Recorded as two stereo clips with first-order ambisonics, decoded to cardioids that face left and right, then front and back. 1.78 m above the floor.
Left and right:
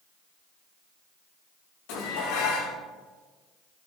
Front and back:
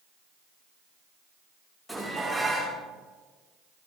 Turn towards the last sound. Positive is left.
turn(degrees=85)